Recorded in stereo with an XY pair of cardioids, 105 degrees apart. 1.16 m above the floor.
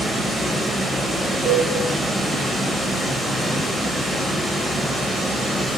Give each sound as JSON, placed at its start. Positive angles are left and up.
{"t": 0.0, "sound": "running water", "azimuth_deg": 5, "distance_m": 0.8}
{"t": 1.4, "sound": "a cowbell", "azimuth_deg": -50, "distance_m": 1.0}